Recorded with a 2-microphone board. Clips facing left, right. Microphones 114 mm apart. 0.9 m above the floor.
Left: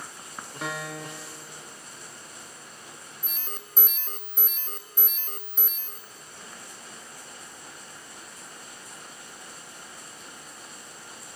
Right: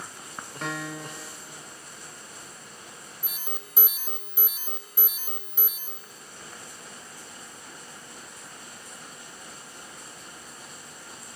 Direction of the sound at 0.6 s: 5° left (ahead or behind).